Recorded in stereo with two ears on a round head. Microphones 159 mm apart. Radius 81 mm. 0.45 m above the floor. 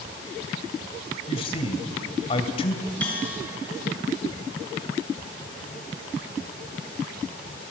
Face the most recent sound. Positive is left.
turn(degrees=10)  # may be behind; listen again after turning